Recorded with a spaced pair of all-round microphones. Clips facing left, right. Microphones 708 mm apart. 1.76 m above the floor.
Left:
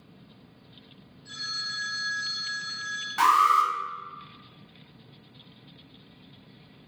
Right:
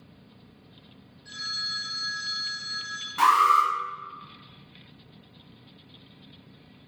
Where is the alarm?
25° left (ahead or behind), 0.6 m.